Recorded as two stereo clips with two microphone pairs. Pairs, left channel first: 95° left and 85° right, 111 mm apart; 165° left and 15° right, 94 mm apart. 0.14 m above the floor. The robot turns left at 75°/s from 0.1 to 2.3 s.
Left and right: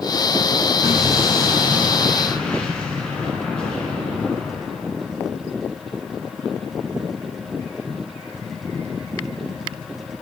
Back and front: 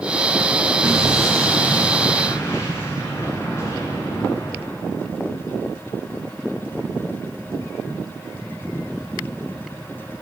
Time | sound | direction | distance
0.8 | an explosion | 80° right | 1.6 m